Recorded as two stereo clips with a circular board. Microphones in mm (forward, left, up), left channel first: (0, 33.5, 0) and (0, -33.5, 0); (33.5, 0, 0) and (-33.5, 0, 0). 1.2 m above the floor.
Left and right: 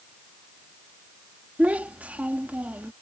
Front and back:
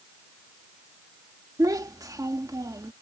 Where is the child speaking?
160° right.